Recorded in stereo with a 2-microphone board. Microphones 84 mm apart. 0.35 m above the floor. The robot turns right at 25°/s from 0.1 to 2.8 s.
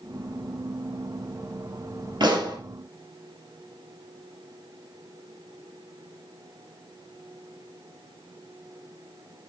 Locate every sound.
2.2 s a pop: 60° right (ahead or behind), 3.5 m; by 2.6 s 50° right (ahead or behind), 3.5 m